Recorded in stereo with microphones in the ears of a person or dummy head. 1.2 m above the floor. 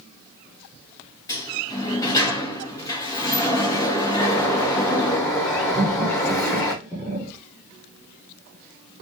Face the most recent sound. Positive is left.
turn(degrees=15)  # may be behind; listen again after turning